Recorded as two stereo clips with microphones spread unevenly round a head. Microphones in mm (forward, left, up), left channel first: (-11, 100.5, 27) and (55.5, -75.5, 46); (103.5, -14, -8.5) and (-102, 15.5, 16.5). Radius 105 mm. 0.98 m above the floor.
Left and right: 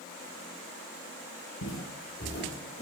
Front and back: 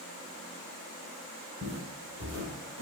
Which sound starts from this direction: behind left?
Footsteps, at 1.6 s.